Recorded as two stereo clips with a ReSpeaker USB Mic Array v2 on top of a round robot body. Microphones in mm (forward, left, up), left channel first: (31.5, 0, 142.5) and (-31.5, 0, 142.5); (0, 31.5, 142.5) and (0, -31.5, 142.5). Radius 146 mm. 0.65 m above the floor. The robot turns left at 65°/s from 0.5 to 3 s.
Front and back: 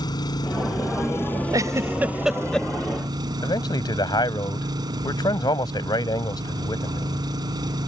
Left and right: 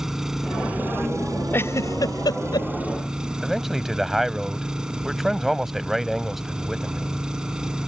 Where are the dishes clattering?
I don't hear dishes clattering.